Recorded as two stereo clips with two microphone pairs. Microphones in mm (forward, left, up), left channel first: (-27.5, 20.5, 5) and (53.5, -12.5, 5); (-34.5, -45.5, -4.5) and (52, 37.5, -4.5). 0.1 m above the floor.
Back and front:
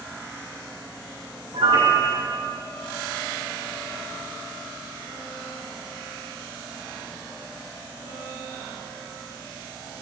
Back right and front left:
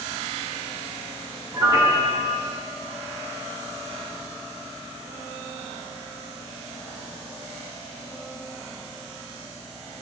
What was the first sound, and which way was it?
A piano, 20° right.